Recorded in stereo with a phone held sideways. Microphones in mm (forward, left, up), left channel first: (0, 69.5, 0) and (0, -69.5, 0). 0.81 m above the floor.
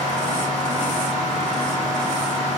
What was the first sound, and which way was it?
A fan, 55° right (ahead or behind).